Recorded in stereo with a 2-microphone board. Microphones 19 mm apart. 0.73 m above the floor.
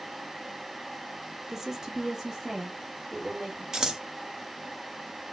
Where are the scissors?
35° right (ahead or behind), 1.0 m.